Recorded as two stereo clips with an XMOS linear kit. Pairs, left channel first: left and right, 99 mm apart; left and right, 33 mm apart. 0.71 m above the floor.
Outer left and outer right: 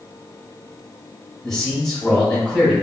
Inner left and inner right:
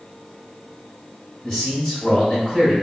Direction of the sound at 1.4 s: 5° left (ahead or behind).